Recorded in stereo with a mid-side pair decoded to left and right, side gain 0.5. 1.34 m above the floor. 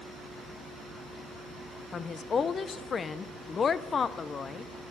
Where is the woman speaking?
40° left, 0.6 m.